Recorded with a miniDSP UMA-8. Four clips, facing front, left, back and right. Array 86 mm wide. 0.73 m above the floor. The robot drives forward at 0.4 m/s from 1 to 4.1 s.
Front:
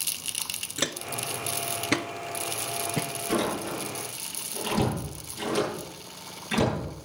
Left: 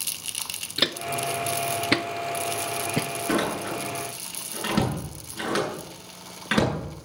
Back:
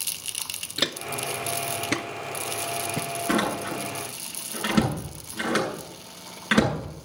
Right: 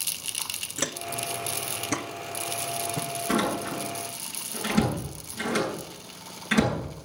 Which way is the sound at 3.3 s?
155° left.